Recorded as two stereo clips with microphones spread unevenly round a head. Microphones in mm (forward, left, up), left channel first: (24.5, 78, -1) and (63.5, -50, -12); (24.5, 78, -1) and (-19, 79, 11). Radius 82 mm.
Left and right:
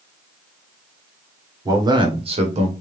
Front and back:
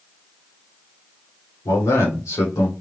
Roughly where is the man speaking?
Ahead.